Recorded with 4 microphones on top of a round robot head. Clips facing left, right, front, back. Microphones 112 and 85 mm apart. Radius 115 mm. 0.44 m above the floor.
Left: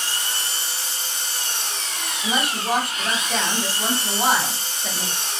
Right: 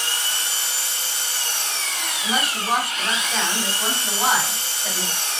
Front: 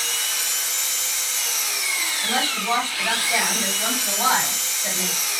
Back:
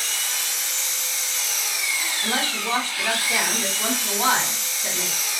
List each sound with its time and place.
0.0 s an engine running: 70° right, 0.9 m
2.2 s a woman speaking: 175° right, 1.9 m